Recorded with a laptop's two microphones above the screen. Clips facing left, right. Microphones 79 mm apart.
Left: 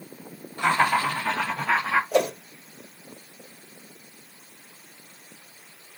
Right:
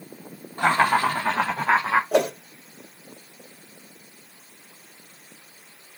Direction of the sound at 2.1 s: 70° right (ahead or behind).